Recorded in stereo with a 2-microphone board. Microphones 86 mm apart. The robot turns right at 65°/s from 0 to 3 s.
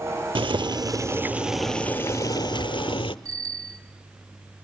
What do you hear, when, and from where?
0.3 s boiling: 80° right, 0.7 m; by 3.1 s 90° left, 0.7 m
3.2 s a bicycle bell: 40° right (ahead or behind), 2 m